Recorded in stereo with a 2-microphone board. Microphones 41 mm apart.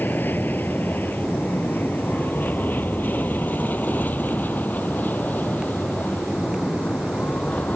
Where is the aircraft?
55° left (ahead or behind); by 7.8 s 45° left (ahead or behind).